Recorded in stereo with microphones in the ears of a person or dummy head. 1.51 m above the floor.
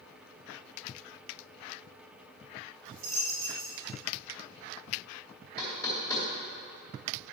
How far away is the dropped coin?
About 3 m.